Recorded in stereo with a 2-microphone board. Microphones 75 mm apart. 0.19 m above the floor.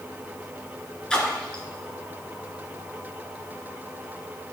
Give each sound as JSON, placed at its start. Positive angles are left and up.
{"t": 1.1, "sound": "a splash", "side_deg": 10, "distance_m": 1.7}